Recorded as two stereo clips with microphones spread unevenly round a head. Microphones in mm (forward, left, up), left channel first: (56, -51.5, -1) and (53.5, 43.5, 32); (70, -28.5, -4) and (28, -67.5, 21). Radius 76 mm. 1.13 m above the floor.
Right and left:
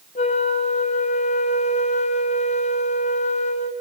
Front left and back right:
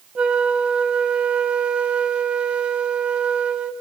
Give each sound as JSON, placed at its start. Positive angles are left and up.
{"t": 0.1, "sound": "a flute", "azimuth_deg": -110, "distance_m": 1.3}